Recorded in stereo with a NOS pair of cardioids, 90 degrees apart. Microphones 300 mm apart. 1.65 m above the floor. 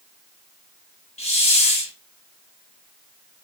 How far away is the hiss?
About 0.9 m.